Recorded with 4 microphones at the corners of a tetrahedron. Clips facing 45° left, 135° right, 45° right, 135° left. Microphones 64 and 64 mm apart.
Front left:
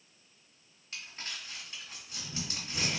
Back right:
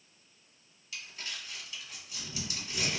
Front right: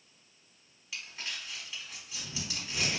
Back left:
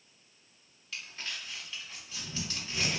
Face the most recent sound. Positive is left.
turn(degrees=25)